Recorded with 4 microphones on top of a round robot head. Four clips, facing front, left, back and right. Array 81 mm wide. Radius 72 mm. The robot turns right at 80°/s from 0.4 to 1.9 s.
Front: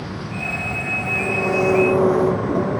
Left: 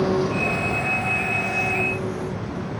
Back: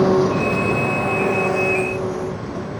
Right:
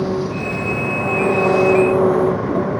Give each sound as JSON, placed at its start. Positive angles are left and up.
{"t": 0.0, "sound": "an engine running", "azimuth_deg": 180}